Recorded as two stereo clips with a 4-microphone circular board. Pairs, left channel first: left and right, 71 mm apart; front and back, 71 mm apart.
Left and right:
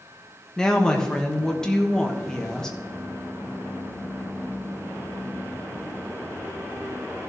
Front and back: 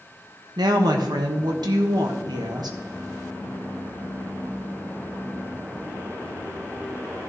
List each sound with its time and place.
0.6 s a woman speaking: 170° left, 1.3 m